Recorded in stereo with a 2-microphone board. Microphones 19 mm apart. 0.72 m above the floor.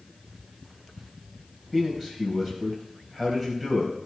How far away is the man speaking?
About 3.5 m.